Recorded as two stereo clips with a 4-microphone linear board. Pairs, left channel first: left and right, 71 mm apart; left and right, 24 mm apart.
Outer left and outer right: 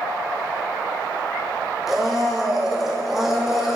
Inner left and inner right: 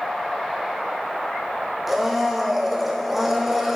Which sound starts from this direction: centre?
A blender, at 1.9 s.